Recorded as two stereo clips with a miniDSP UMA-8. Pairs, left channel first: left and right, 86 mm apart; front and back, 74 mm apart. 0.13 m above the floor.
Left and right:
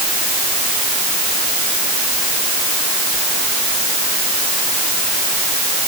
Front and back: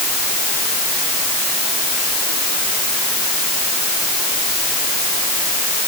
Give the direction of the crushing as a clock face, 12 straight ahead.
I don't hear crushing.